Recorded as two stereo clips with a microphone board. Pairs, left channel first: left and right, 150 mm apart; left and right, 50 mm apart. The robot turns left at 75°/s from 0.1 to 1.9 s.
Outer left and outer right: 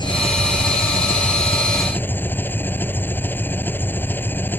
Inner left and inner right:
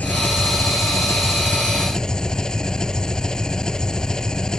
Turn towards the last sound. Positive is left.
turn(degrees=15)